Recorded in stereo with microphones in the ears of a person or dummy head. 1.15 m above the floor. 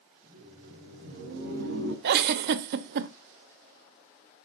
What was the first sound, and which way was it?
Laughter, 40° right (ahead or behind).